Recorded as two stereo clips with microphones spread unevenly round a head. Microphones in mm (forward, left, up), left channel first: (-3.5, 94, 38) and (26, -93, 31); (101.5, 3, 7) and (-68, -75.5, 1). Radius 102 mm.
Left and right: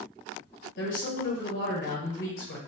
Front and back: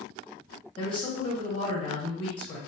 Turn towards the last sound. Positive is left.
turn(degrees=90)